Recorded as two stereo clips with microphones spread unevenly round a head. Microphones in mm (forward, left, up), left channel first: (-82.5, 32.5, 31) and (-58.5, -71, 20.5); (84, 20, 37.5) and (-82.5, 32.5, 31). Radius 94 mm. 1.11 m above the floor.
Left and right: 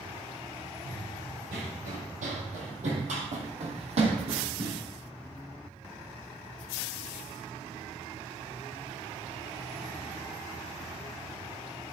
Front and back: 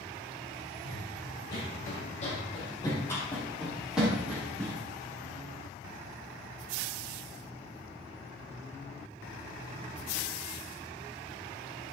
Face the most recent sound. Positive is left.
turn(degrees=-110)